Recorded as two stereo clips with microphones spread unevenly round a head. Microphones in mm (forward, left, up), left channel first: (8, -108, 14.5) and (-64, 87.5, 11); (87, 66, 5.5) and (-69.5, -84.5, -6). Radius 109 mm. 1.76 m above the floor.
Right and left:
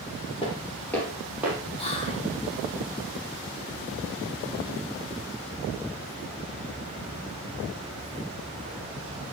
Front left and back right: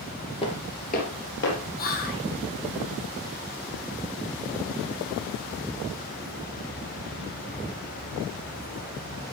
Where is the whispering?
5° right, 1.6 m.